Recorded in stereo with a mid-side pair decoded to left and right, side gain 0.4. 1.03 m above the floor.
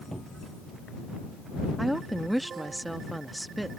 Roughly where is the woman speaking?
Ahead.